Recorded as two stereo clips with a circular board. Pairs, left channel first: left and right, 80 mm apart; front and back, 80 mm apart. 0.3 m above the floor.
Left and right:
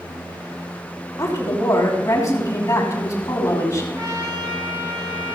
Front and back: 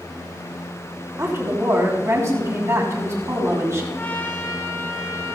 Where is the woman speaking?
130° left, 2.5 m.